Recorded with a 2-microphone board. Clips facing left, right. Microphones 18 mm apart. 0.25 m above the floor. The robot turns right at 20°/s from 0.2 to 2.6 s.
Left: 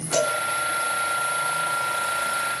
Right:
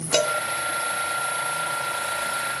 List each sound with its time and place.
0.1 s a cowbell: 55° right (ahead or behind), 2.5 m